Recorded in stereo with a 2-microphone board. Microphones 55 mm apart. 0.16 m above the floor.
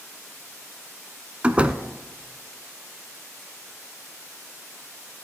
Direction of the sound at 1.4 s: 25° right (ahead or behind).